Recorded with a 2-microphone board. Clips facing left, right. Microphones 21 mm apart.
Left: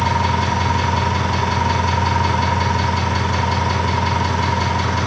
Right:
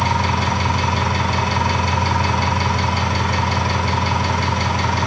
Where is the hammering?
I don't hear hammering.